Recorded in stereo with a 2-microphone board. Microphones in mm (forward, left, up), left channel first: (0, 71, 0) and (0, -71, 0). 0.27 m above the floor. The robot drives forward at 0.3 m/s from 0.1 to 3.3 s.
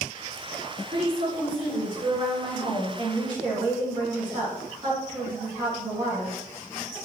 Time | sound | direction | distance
0.9 | a woman speaking | 40° right (ahead or behind) | 2.0 m